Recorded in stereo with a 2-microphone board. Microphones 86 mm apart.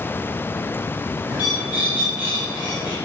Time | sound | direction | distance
1.3 | a bird | 20° right (ahead or behind) | 5.5 m